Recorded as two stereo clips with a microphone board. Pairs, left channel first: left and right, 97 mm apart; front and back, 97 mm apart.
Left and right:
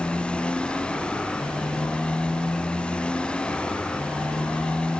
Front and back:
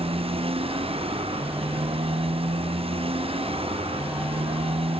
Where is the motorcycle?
170° left.